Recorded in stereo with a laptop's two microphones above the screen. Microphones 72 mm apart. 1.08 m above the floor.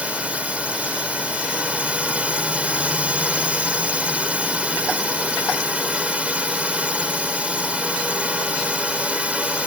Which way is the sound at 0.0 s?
20° right (ahead or behind).